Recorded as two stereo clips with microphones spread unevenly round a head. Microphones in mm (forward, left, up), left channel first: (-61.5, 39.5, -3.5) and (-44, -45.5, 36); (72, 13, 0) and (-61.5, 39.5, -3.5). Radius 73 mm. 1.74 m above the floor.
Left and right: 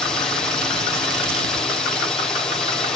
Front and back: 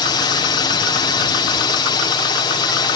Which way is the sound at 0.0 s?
40° left.